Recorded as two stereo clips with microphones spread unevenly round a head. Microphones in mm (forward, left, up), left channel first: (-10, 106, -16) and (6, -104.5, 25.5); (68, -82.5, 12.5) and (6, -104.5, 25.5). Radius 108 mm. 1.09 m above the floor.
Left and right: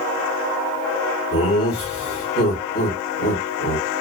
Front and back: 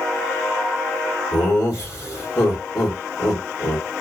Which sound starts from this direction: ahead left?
Laughter, at 1.3 s.